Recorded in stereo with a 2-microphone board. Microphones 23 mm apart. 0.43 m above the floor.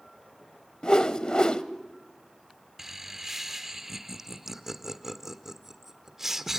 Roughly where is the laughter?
Centre.